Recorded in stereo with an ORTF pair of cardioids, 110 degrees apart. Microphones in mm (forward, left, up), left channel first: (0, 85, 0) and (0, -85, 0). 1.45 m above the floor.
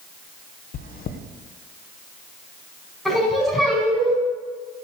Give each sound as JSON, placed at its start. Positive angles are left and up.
{"t": 0.7, "sound": "chewing", "azimuth_deg": 60, "distance_m": 1.0}
{"t": 3.0, "sound": "singing", "azimuth_deg": 0, "distance_m": 5.0}